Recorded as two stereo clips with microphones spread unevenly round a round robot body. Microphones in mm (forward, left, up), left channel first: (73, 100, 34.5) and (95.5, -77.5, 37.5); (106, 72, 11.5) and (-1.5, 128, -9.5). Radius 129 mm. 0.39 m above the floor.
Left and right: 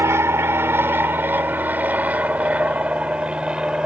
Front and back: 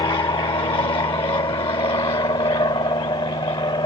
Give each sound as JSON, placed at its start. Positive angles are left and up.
{"t": 0.0, "sound": "an aircraft", "azimuth_deg": -20}